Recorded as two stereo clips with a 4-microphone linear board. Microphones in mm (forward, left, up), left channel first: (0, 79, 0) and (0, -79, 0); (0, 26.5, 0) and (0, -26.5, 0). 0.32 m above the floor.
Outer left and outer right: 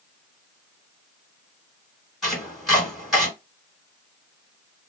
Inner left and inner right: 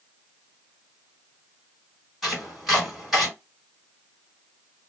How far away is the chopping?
About 1.8 m.